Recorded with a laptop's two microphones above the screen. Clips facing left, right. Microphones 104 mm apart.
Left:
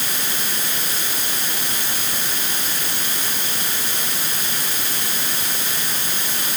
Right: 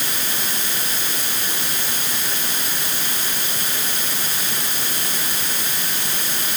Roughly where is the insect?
No insect in this recording.